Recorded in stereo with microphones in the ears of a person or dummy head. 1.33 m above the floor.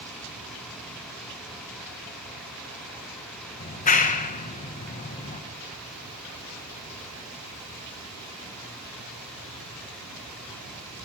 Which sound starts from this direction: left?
A clap, at 3.6 s.